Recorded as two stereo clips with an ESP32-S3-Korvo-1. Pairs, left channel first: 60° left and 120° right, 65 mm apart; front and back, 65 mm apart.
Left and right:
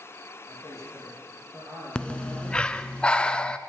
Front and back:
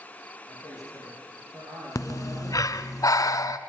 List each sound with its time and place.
0.5 s a man speaking: 170° right, 8 m; by 3.0 s 175° left, 7 m
1.9 s breathing: 15° right, 0.7 m